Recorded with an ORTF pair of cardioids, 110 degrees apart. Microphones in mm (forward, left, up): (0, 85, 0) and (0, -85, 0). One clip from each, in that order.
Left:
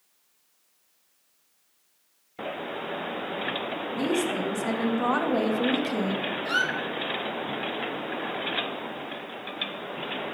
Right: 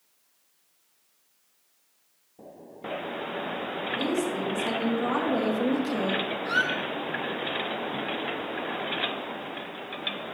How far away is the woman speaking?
About 2.5 m.